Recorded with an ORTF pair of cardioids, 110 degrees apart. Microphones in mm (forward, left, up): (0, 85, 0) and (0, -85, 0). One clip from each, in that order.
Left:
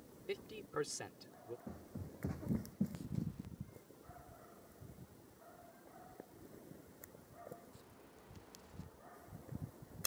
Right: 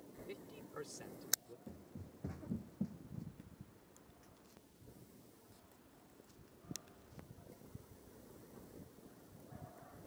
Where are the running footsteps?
25° left.